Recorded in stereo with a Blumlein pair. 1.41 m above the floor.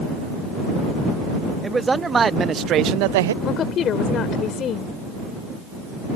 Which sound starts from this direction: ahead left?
A woman speaking, at 3.4 s.